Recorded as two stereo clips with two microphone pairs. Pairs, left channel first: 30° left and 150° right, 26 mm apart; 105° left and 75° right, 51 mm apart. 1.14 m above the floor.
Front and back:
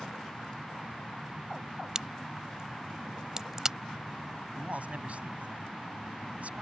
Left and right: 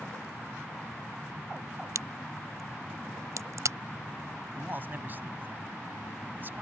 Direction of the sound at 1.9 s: 85° right.